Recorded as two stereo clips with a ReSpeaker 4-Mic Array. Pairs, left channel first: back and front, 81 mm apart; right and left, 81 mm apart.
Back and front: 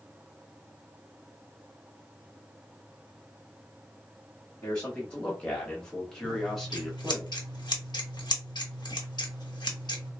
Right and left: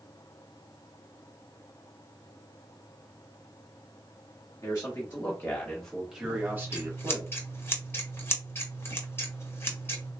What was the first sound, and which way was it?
A man speaking, 110° right.